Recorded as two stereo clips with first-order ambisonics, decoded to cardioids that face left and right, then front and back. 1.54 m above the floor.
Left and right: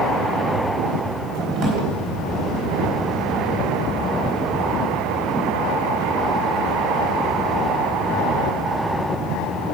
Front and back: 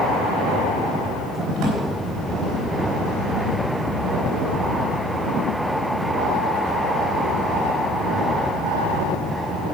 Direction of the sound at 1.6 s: 130° right.